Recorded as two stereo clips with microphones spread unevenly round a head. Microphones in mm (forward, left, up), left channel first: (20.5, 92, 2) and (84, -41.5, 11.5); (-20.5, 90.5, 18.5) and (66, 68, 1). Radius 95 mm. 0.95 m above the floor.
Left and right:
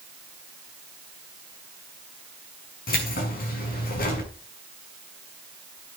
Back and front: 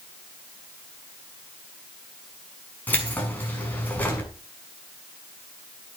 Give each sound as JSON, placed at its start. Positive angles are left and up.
{"t": 2.9, "sound": "keys jangling", "azimuth_deg": 95, "distance_m": 6.5}